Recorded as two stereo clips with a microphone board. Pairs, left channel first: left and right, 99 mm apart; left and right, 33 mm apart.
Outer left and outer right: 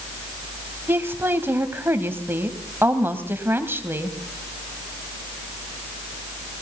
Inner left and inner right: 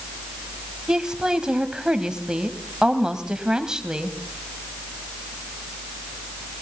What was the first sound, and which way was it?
A woman speaking, 25° right (ahead or behind).